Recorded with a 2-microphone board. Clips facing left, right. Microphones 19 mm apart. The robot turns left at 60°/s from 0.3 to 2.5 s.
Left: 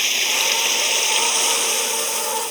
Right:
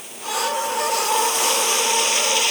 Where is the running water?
85° left; by 2.5 s 50° right.